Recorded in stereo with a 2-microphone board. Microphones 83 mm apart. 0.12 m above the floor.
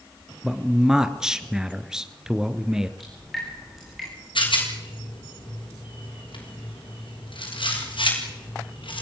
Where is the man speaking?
5° right (ahead or behind), 1.7 m.